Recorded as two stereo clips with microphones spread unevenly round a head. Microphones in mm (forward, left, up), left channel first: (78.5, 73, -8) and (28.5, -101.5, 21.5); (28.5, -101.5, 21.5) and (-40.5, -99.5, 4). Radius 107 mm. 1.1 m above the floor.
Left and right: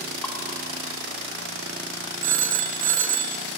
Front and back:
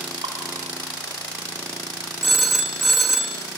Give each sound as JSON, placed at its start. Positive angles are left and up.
{"t": 0.2, "sound": "dripping", "azimuth_deg": 160, "distance_m": 2.0}
{"t": 2.2, "sound": "a phone ringing", "azimuth_deg": -90, "distance_m": 1.2}